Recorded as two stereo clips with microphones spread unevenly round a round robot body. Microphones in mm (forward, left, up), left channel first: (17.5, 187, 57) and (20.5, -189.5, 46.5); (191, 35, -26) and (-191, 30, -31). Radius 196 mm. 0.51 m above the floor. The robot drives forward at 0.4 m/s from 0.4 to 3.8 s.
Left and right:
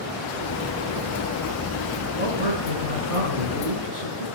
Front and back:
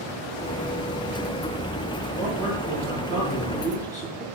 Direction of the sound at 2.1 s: 90° right.